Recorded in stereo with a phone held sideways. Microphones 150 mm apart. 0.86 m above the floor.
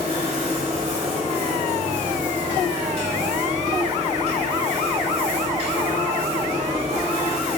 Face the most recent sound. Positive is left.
turn(degrees=-45)  # may be behind; listen again after turning